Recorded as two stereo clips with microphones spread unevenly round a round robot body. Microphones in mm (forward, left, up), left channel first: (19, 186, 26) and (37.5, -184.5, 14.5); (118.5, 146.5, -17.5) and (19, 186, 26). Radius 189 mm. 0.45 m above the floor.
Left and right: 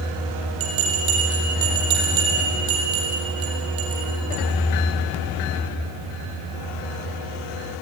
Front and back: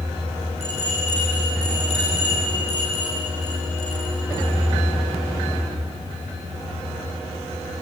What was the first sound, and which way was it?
A bell, 85° right.